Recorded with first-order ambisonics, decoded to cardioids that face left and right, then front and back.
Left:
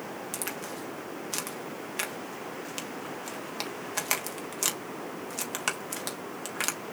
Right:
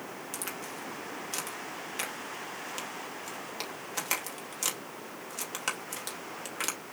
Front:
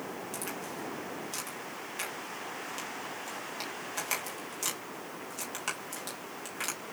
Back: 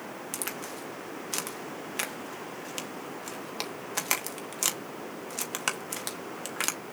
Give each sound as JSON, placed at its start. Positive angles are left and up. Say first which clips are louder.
{"t": 0.3, "sound": "a crack", "louder": "left 1 dB, back 4 dB", "azimuth_deg": 155, "distance_m": 1.0}